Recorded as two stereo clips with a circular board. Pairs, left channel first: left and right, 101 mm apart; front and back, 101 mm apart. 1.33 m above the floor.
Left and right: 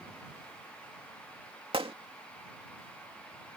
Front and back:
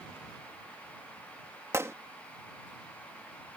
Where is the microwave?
No microwave in this recording.